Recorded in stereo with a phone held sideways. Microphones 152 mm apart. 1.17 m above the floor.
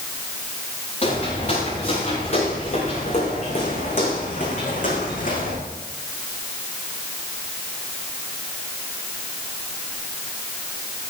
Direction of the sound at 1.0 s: 45° left (ahead or behind).